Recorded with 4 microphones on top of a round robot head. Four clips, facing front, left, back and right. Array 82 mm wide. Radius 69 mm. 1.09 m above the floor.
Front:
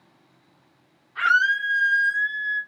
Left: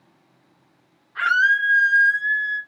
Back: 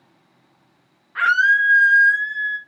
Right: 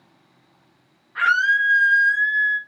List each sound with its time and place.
1.1 s a scream: 165° right, 1.1 m